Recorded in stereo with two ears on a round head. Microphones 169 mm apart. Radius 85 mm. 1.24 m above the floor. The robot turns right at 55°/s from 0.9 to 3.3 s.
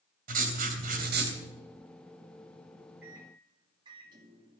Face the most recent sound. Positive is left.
turn(degrees=-25)  # may be behind; listen again after turning